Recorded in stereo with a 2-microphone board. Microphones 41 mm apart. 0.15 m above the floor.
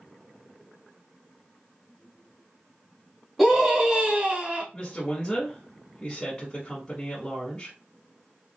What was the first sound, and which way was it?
A scream, 5° right (ahead or behind).